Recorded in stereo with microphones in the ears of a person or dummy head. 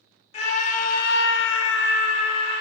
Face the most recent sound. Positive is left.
turn(degrees=30)  # may be behind; listen again after turning